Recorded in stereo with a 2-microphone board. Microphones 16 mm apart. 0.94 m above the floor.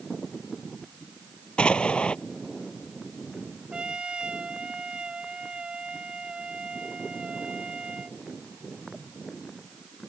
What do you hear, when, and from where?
1.6 s an explosion: 80° left
3.7 s a trumpet: 80° right